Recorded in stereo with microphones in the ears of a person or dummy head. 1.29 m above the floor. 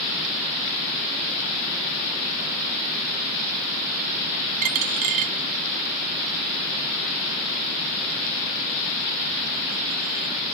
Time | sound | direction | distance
4.6 | a dropped coin | 45° right (ahead or behind) | 0.9 m